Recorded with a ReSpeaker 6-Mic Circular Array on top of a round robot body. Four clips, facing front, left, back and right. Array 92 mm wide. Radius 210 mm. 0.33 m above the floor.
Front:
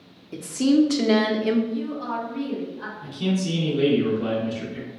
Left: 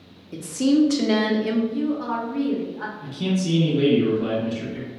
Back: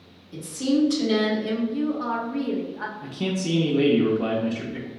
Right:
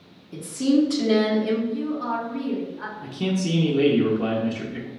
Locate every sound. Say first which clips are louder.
0.3 s a woman speaking: left 1 dB, front 4 dB; 25° left, 1.1 m
1.7 s a woman speaking: left 2 dB, back 3 dB; 165° left, 1.5 m
3.0 s a man speaking: even, front 3 dB; 145° right, 1.3 m